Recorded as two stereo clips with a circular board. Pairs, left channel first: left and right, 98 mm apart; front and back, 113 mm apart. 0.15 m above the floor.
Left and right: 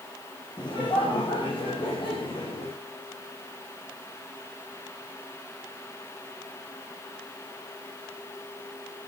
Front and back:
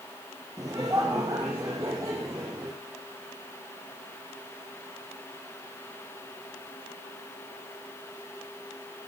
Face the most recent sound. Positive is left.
turn(degrees=120)